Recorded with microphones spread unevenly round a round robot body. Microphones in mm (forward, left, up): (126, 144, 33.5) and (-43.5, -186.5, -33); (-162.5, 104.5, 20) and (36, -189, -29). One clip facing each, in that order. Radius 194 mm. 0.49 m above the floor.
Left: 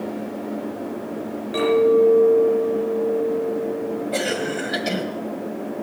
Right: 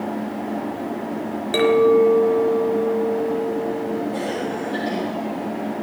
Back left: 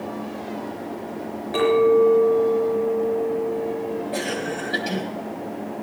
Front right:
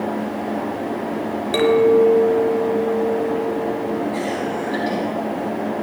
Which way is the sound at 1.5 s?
90° right.